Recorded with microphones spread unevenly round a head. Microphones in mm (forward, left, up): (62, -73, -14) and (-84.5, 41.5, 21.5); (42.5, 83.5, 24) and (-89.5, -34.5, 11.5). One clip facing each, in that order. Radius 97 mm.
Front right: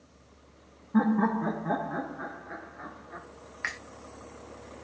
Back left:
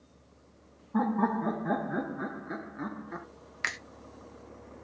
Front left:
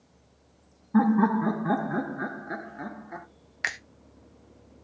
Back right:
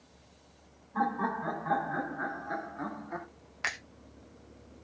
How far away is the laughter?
About 0.8 m.